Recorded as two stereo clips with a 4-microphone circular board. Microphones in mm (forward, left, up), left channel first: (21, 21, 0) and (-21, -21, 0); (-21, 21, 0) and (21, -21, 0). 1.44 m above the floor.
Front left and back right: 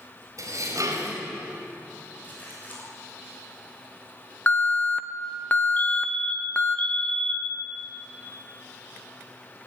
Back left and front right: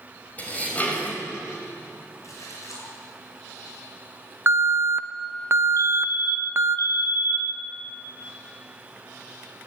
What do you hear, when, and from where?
0.4 s dishes clattering: 160° right, 5 m
2.2 s a splash: 105° left, 7 m
4.5 s an alarm: 10° right, 1.3 m
5.8 s a fire alarm: 110° left, 1.6 m